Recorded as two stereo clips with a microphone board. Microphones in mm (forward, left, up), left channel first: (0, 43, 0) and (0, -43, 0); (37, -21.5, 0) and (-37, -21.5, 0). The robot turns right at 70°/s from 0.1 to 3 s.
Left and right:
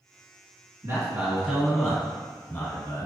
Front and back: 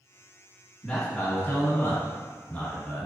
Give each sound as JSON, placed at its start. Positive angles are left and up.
{"t": 0.8, "sound": "a man speaking", "azimuth_deg": -80, "distance_m": 1.6}